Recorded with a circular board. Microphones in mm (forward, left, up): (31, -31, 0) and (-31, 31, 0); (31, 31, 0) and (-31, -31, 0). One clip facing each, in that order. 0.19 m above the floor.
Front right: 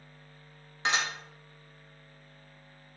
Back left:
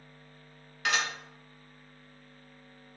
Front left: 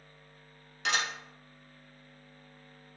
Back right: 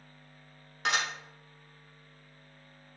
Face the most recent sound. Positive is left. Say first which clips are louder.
# even, back right 1 dB
turn(degrees=-100)